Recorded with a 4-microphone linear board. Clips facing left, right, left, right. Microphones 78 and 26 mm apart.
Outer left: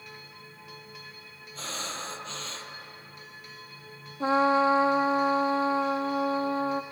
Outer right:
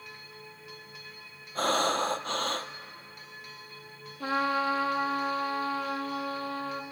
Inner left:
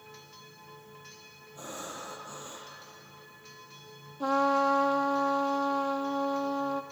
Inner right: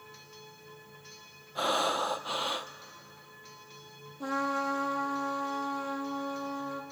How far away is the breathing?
About 0.8 m.